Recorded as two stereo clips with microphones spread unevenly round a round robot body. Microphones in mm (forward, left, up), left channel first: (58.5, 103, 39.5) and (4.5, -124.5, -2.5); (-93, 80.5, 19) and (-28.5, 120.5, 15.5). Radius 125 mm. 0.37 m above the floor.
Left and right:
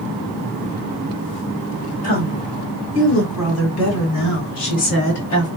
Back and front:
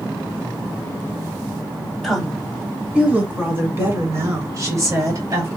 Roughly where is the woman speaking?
Behind left.